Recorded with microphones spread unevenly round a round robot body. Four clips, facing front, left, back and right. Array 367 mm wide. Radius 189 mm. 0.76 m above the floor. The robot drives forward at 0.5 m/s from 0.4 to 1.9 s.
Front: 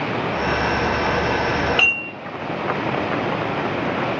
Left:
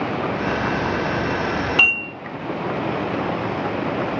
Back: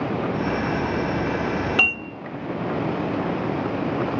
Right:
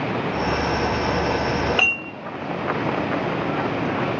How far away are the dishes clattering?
About 1.6 m.